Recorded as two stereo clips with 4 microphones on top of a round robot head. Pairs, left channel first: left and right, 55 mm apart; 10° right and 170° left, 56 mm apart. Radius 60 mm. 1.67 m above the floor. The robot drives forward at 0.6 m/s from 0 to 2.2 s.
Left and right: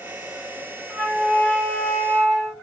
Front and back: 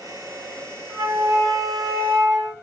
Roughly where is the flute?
Behind.